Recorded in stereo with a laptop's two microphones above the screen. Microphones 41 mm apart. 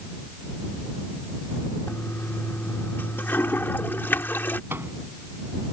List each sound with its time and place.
1.9 s a toilet flushing: 70° left (ahead or behind)
4.7 s a microwave: 75° right (ahead or behind)